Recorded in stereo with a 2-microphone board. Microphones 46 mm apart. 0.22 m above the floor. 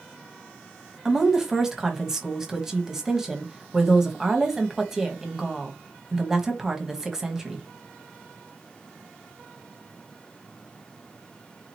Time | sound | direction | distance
1.1 | a woman speaking | 10° right (ahead or behind) | 1.1 m